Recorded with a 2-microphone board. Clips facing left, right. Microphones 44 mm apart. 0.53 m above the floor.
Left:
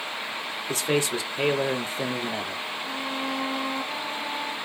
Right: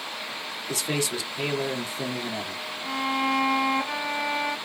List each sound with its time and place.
0.7 s a man speaking: 35° left (ahead or behind), 1.3 m
2.8 s a violin: 70° right (ahead or behind), 0.9 m